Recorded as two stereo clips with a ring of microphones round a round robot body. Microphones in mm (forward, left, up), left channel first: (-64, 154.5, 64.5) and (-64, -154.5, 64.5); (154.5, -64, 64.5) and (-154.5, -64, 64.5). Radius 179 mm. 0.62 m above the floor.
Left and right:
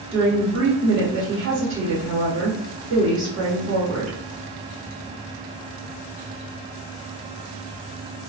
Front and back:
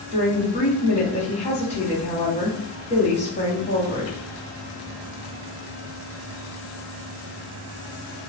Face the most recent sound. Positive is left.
turn(degrees=-60)